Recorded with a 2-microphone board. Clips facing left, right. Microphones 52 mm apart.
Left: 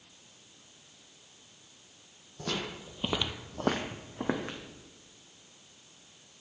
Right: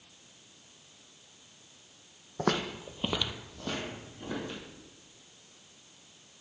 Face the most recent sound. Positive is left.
turn(degrees=70)  # may be behind; listen again after turning